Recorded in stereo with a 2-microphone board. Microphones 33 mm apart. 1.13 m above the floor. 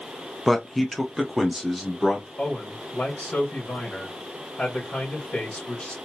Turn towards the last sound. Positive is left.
turn(degrees=50)  # may be behind; listen again after turning